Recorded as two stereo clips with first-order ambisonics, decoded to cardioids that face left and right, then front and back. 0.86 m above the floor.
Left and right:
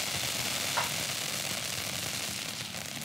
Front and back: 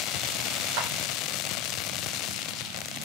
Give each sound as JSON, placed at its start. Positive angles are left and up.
{"t": 0.8, "sound": "a clap", "azimuth_deg": 180, "distance_m": 2.5}